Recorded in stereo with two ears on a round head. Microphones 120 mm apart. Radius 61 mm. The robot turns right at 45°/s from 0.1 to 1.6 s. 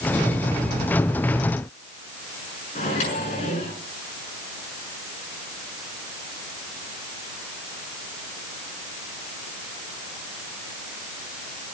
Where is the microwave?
55° left (ahead or behind), 6.5 m.